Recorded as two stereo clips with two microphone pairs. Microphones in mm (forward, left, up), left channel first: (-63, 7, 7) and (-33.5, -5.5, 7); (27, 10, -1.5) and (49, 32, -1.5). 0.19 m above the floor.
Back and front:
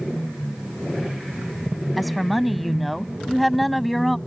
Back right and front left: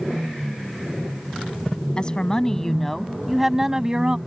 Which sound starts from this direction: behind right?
A woman speaking, at 2.0 s.